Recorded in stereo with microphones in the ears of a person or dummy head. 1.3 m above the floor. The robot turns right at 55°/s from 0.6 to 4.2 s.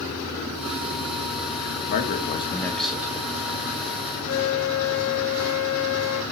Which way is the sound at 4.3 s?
70° left (ahead or behind).